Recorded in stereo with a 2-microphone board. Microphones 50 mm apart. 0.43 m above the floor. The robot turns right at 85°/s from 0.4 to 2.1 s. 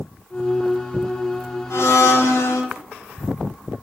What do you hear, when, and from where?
1.7 s a blender: 60° left, 1.0 m; by 2.6 s 95° left, 1.0 m